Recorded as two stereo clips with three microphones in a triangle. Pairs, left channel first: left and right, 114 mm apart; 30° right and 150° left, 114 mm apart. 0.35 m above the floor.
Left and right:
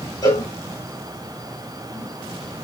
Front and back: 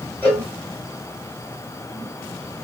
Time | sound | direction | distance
0.2 | a cowbell | 40° left | 2 m